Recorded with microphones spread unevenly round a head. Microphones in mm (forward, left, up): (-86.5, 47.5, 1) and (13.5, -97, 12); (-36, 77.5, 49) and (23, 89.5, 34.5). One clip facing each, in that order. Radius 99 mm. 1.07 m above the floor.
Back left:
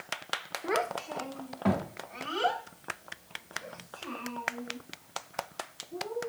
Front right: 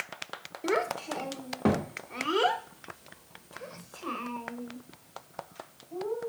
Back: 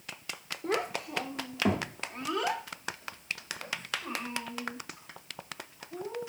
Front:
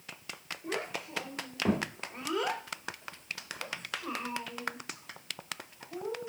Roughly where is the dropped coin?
No dropped coin in this recording.